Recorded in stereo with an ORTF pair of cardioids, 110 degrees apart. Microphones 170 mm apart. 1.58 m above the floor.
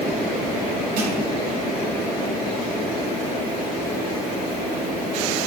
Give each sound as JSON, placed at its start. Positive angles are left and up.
{"t": 1.0, "sound": "crushing", "azimuth_deg": -65, "distance_m": 9.0}